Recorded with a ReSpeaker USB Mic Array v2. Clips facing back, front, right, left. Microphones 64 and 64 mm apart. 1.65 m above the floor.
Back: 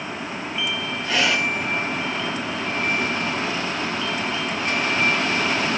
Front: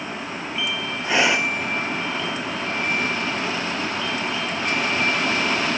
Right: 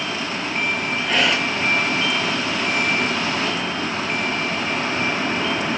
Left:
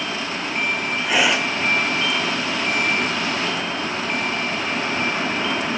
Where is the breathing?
20° left, 1.0 m.